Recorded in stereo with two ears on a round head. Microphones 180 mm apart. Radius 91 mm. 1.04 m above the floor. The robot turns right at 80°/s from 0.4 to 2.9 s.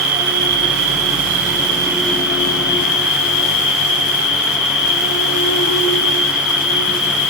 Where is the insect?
130° right, 3.5 m; by 7.3 s 70° left, 3.5 m.